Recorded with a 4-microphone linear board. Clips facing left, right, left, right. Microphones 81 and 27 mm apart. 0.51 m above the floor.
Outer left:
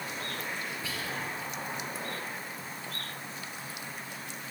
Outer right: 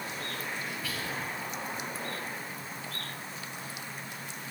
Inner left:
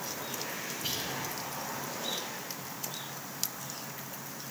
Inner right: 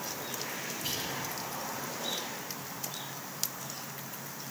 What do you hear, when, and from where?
0.8 s whispering: 25° left (ahead or behind), 1.3 m